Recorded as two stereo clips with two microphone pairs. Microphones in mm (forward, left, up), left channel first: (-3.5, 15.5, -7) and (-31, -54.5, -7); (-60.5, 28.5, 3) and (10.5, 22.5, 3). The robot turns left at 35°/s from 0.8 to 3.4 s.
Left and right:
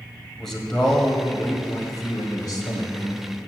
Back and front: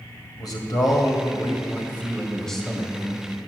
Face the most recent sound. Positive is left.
turn(degrees=60)